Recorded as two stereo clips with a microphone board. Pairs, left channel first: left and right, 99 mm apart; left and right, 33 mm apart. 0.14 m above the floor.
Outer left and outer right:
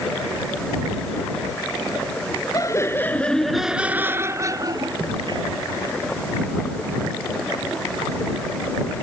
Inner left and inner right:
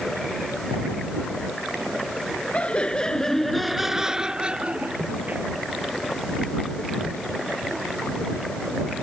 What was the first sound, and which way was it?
Laughter, 35° left (ahead or behind).